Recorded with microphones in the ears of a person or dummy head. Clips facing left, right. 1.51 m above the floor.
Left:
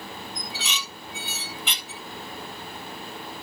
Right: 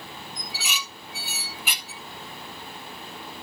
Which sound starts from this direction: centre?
Dishes clattering, at 0.3 s.